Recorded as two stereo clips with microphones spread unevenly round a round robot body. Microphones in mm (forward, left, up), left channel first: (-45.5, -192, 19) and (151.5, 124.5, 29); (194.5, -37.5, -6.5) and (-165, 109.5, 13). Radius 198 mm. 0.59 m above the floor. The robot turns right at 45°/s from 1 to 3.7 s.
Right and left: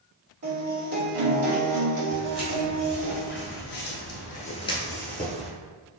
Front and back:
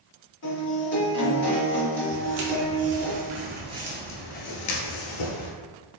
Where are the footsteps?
110° left, 1.3 m; by 5.5 s 30° right, 1.0 m.